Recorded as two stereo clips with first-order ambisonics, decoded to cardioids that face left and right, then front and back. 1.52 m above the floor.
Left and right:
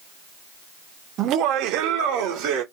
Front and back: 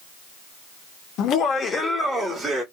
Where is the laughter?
40° right, 0.5 m; by 2.6 s 105° right, 0.8 m.